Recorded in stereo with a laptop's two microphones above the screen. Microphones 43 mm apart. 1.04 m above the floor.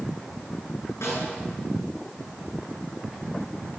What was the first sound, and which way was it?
A snare drum, 85° left.